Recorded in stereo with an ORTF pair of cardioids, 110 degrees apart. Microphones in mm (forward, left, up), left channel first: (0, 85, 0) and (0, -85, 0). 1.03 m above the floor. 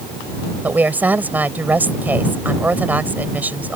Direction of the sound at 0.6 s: 10° right.